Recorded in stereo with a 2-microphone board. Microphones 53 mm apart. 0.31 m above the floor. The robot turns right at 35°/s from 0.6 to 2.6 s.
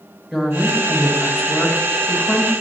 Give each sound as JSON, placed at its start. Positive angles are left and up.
{"t": 0.3, "sound": "a woman speaking", "azimuth_deg": -25, "distance_m": 1.6}